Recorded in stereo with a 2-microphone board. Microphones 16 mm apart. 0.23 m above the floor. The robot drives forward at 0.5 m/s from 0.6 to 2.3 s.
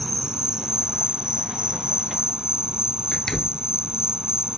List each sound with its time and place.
0.0 s an insect: 50° right (ahead or behind); by 4.6 s 55° right (ahead or behind)
3.1 s a door slam: 25° left (ahead or behind)